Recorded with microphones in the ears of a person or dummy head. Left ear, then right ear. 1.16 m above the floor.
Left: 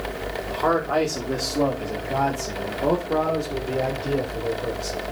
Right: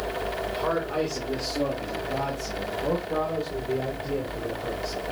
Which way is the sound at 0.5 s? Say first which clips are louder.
Left 8 dB; 25° left (ahead or behind).